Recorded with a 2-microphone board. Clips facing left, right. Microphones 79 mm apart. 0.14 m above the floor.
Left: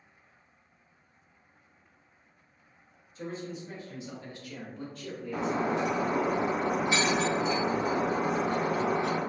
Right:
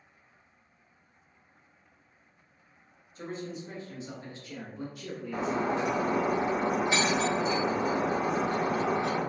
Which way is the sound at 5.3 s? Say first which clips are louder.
Even; 25° right (ahead or behind).